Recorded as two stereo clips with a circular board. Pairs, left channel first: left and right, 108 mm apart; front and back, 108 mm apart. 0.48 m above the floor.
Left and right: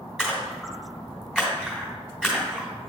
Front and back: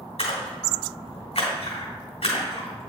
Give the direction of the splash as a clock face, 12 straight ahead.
12 o'clock.